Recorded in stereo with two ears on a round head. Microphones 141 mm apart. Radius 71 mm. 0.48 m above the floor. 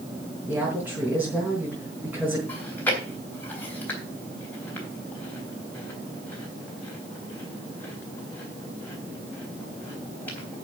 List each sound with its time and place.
0.5 s a woman speaking: 10° right (ahead or behind), 4 m
2.5 s chewing: 10° left (ahead or behind), 3.5 m